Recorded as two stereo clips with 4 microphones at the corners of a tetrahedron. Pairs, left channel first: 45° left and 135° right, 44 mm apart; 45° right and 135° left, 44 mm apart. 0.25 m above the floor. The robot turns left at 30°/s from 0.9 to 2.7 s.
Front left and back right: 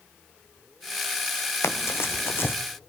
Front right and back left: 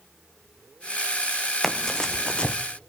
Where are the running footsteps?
45° left, 1.1 m; by 2.5 s 15° left, 1.1 m.